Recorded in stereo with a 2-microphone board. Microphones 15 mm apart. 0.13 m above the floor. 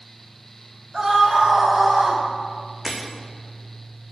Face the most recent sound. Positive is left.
turn(degrees=-30)  # may be behind; listen again after turning